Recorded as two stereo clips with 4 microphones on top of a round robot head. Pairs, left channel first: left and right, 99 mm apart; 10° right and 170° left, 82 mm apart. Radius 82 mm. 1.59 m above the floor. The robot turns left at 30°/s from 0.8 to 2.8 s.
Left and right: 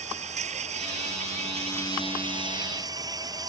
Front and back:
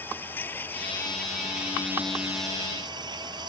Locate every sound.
0.0 s an insect: 85° right; by 3.5 s 145° right